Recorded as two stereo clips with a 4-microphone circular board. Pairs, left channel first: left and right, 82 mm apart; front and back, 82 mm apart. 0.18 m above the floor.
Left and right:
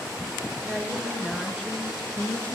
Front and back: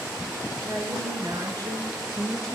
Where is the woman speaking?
170° right, 2.5 m; by 2.5 s 150° left, 2.5 m.